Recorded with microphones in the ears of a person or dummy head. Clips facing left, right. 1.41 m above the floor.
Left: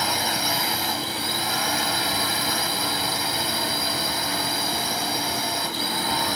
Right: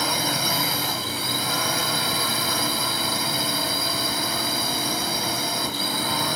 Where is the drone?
75° right (ahead or behind).